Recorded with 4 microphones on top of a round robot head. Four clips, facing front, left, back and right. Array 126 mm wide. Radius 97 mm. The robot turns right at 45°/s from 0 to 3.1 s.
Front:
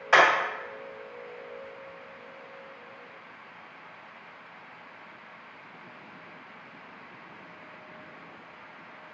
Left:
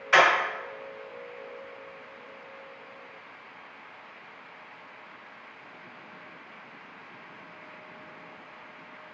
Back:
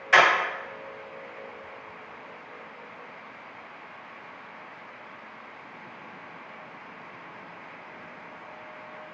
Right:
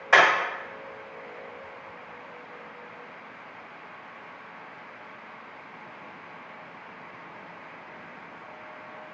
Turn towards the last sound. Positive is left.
turn(degrees=85)